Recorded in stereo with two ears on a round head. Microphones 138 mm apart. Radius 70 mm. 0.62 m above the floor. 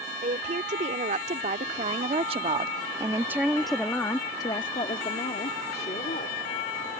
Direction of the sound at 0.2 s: 50° right (ahead or behind).